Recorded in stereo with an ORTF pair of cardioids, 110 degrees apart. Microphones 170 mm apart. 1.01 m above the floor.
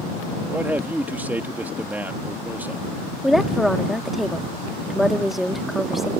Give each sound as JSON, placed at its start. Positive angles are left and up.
{"t": 0.5, "sound": "a man speaking", "azimuth_deg": -10}
{"t": 3.2, "sound": "a woman speaking", "azimuth_deg": 0}